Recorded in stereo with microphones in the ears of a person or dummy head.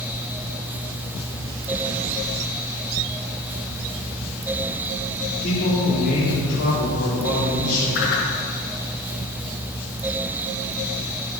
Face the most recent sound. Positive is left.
turn(degrees=65)  # may be behind; listen again after turning